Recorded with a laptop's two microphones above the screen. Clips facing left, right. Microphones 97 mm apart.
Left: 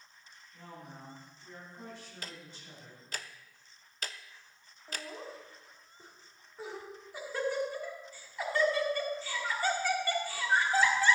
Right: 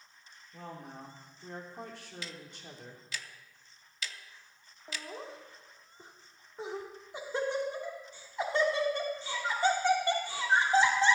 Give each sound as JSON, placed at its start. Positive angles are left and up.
{"t": 0.5, "sound": "a woman speaking", "side_deg": -75, "distance_m": 2.5}
{"t": 2.2, "sound": "ticking", "side_deg": 45, "distance_m": 0.6}
{"t": 4.9, "sound": "laughter", "side_deg": -25, "distance_m": 3.0}